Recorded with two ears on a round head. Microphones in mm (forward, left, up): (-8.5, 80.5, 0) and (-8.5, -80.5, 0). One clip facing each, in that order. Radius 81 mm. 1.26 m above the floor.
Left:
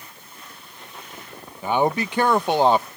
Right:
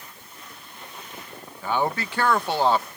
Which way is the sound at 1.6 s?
15° left (ahead or behind).